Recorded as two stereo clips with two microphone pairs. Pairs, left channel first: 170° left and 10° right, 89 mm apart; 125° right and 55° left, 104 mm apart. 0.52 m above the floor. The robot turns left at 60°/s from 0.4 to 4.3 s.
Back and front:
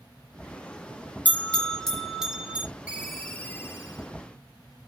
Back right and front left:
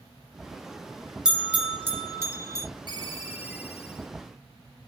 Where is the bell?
130° left, 1.1 m; by 2.7 s 45° left, 1.1 m.